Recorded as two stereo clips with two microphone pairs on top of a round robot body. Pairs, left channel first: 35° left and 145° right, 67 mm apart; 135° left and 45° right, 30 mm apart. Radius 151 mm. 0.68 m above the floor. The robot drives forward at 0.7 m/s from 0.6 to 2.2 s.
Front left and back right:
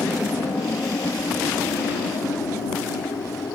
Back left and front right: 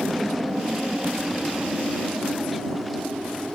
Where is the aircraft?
15° left; by 3.6 s 20° left.